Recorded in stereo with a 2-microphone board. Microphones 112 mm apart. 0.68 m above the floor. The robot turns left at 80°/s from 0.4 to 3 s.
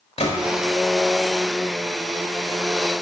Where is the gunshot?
70° left (ahead or behind), 1.2 m.